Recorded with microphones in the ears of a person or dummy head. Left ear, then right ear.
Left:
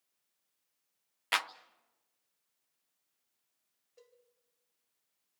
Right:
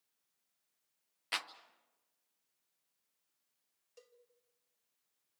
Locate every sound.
1.3 s a clap: 25° left (ahead or behind), 0.7 m
4.0 s a cowbell: 85° right, 1.8 m